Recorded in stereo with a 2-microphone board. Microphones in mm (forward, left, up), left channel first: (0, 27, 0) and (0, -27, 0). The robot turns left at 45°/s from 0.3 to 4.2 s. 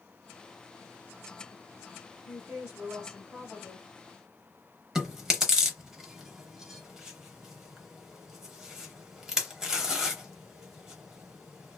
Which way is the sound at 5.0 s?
10° right (ahead or behind).